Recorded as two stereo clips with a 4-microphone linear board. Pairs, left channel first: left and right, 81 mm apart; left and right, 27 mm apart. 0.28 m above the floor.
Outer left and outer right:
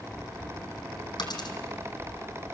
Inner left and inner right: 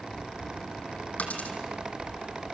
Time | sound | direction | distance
1.2 | a dropped coin | 60° left (ahead or behind) | 2.5 m